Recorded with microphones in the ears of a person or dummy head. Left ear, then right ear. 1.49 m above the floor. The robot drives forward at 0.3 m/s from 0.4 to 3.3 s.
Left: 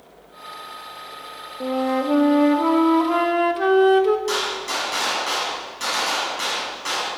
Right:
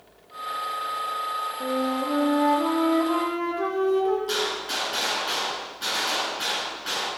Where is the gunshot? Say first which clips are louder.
Left 3 dB; 55° left (ahead or behind), 7 m.